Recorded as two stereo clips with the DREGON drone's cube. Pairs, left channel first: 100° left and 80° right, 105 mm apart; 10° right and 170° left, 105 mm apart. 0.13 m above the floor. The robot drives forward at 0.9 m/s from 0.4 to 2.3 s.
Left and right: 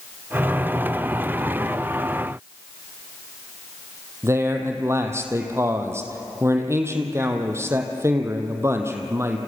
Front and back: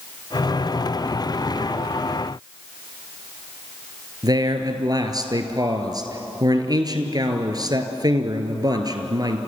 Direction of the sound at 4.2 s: 140° right.